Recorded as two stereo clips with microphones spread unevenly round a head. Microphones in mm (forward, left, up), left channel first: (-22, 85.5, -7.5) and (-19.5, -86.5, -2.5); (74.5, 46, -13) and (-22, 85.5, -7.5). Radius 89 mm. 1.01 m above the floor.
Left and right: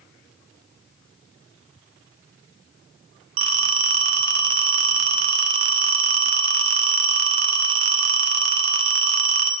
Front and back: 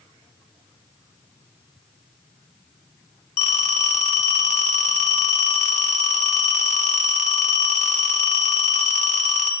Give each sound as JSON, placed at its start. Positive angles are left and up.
{"t": 3.4, "sound": "a phone ringing", "azimuth_deg": -75, "distance_m": 1.3}